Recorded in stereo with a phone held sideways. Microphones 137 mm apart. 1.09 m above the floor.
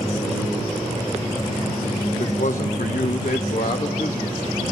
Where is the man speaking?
65° left (ahead or behind), 0.7 m; by 4.4 s 70° left (ahead or behind), 2 m.